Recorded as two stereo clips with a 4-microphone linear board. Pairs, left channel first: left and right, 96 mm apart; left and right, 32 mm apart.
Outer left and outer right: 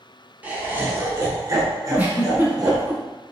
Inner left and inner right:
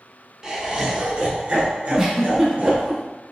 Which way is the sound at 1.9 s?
20° right (ahead or behind).